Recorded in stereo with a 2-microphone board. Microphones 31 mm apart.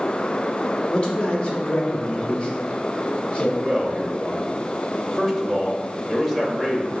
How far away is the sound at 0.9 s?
About 1.3 m.